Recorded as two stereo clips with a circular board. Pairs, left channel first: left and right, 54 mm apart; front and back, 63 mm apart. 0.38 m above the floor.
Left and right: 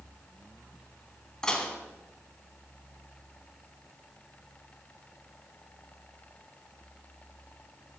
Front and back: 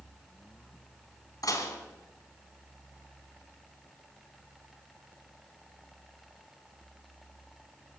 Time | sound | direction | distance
1.4 | dishes clattering | 15° left | 2.5 m